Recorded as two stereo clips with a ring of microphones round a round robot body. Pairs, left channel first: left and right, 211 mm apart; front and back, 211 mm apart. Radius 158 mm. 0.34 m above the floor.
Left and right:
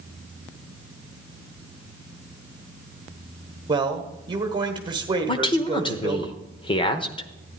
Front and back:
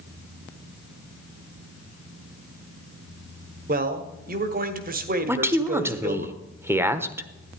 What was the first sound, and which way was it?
A man speaking, 155° right.